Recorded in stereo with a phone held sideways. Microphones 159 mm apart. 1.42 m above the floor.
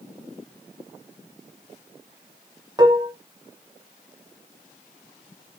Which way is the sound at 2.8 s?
25° right (ahead or behind).